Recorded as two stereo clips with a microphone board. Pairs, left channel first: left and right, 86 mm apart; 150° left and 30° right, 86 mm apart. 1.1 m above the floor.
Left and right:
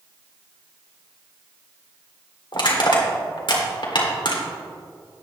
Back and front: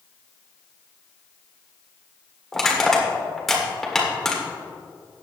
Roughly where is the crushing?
Ahead left.